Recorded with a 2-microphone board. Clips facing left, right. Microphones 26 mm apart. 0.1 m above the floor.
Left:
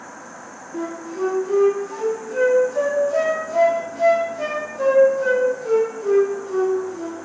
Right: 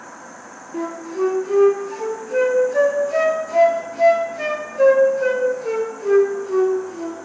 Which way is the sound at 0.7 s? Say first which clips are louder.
Right 3 dB; 45° right (ahead or behind).